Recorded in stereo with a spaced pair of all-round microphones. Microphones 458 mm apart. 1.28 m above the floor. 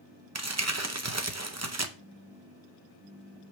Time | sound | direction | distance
0.3 | crumpling | 35° right (ahead or behind) | 0.8 m
2.0 | a phone buzzing | 65° right (ahead or behind) | 3 m